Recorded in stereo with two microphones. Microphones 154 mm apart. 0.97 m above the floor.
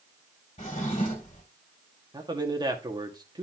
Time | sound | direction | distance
0.6 | a drawer | 50° left (ahead or behind) | 2.5 m
2.1 | a man speaking | 25° right (ahead or behind) | 1.6 m